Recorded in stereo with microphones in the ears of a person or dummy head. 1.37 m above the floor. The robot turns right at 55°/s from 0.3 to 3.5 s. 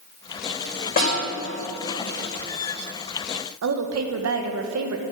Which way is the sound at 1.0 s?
40° left (ahead or behind).